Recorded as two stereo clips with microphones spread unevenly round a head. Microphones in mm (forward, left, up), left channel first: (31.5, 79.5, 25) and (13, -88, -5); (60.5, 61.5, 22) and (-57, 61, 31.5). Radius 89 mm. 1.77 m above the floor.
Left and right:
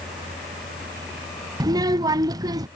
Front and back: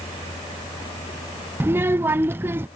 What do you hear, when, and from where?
1.6 s a child speaking: 160° right